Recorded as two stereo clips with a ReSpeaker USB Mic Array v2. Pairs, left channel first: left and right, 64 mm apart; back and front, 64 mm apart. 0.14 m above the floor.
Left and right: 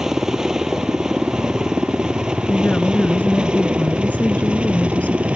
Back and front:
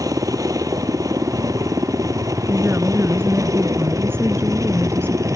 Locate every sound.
0.0 s a helicopter: 10° right; by 5.3 s 20° right
2.5 s a woman speaking: 30° left